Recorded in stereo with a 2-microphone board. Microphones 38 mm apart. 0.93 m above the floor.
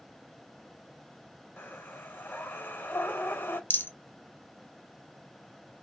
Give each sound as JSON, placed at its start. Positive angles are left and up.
{"t": 1.6, "sound": "breathing", "side_deg": 60, "distance_m": 0.9}
{"t": 3.7, "sound": "a rattle", "side_deg": 60, "distance_m": 0.6}